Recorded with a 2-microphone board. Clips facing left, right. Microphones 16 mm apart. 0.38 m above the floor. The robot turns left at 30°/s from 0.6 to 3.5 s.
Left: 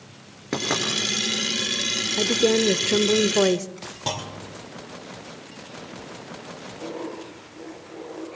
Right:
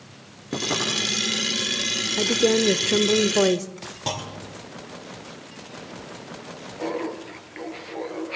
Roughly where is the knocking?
Left.